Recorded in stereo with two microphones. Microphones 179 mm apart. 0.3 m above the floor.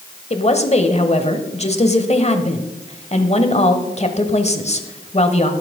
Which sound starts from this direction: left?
A woman speaking, at 0.3 s.